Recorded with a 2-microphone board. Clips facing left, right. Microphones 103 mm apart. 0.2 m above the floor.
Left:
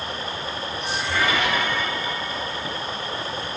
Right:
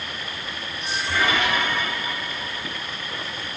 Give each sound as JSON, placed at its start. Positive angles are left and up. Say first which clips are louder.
{"t": 0.0, "sound": "running water", "louder": "left 4 dB", "side_deg": 30}